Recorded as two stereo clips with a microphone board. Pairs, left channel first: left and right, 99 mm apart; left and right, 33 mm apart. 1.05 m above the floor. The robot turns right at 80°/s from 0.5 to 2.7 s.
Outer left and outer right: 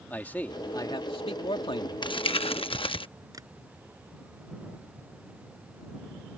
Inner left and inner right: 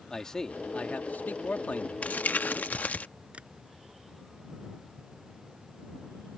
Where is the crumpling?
55° left; by 3.1 s 110° left.